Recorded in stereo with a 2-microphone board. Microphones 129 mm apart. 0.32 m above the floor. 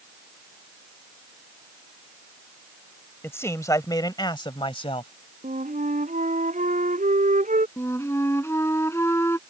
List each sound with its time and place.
3.2 s a man speaking: 20° left (ahead or behind); by 5.1 s 50° left (ahead or behind)
5.4 s a flute: 80° right
7.8 s a flute: 20° left (ahead or behind)